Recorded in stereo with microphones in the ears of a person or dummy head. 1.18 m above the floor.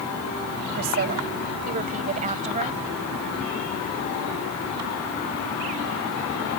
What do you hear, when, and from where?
0.8 s a woman speaking: 40° right (ahead or behind); by 2.8 s 25° right (ahead or behind)